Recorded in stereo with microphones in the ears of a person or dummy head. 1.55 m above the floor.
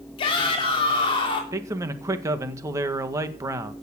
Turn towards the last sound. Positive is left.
turn(degrees=-20)  # may be behind; listen again after turning